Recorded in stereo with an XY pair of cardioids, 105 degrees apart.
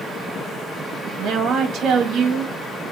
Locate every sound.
1.2 s a woman speaking: 65° right, 1.6 m